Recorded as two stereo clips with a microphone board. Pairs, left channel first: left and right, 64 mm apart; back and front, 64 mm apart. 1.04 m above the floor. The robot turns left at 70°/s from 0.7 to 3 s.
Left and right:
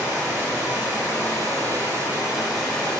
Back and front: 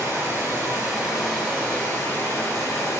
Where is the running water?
40° right, 1.4 m; by 3.0 s 160° left, 1.4 m.